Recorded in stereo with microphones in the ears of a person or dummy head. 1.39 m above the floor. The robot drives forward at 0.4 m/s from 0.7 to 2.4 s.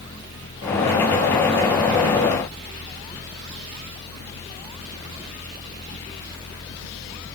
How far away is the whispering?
No whispering in this recording.